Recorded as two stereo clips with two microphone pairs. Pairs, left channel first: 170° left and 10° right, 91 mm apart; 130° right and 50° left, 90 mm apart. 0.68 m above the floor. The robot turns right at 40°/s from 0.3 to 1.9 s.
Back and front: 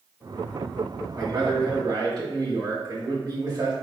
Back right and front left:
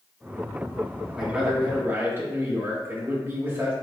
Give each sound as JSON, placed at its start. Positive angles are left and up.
{"t": 1.1, "sound": "a man speaking", "azimuth_deg": -35, "distance_m": 1.4}